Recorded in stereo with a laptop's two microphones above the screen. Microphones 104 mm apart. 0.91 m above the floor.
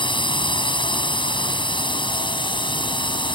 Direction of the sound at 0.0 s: 55° left (ahead or behind).